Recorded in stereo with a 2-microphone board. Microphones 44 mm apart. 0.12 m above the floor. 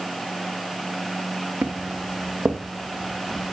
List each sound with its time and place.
1.6 s footsteps: 50° right (ahead or behind), 1.9 m; by 3.5 s 30° right (ahead or behind), 3 m